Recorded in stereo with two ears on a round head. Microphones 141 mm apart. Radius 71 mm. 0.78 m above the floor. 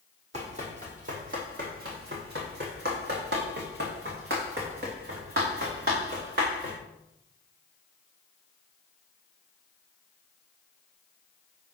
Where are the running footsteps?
45° right (ahead or behind), 2 m; by 6.8 s 60° right (ahead or behind), 4 m.